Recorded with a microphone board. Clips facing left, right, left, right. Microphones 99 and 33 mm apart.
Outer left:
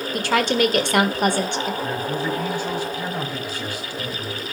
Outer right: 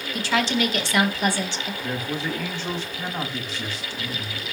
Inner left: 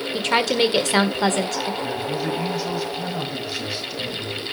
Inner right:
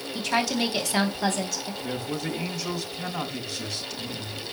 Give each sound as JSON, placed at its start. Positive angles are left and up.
{"t": 0.1, "sound": "a woman speaking", "side_deg": 55, "distance_m": 1.8}
{"t": 1.8, "sound": "a man speaking", "side_deg": 10, "distance_m": 4.5}